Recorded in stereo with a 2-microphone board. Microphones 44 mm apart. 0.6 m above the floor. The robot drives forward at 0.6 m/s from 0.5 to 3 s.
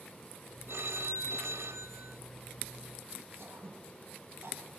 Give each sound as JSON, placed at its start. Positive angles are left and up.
{"t": 0.7, "sound": "a phone ringing", "side_deg": -75, "distance_m": 1.8}
{"t": 3.4, "sound": "throat clearing", "side_deg": -60, "distance_m": 5.5}